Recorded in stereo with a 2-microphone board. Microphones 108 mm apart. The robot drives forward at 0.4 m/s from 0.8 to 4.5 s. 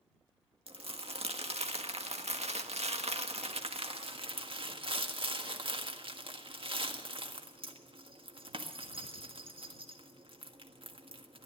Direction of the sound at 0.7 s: 60° right (ahead or behind).